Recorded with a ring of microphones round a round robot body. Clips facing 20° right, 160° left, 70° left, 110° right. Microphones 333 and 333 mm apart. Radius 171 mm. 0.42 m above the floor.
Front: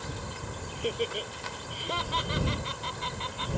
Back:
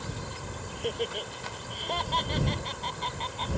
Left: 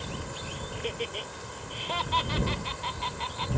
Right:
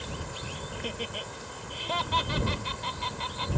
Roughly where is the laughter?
Right.